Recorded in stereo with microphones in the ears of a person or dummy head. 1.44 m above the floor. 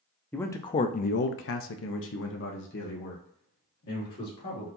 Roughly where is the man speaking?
Centre.